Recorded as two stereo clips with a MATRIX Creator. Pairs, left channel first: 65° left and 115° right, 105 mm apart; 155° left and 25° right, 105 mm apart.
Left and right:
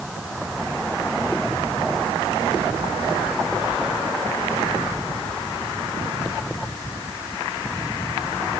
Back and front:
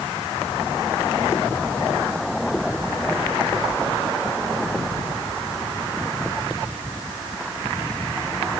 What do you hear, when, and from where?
Only background noise.